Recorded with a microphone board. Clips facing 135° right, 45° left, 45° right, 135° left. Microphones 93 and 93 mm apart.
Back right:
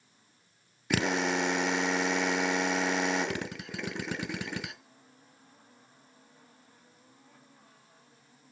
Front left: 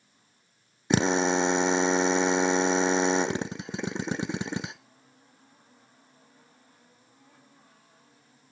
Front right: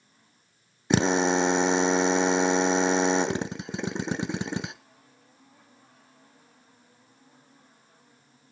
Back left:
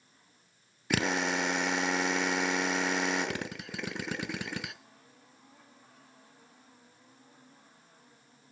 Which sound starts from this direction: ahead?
A drill, at 0.9 s.